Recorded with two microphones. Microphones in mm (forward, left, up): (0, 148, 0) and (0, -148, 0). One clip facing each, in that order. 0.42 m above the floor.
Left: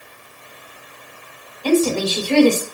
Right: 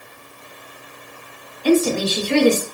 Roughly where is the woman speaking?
Left.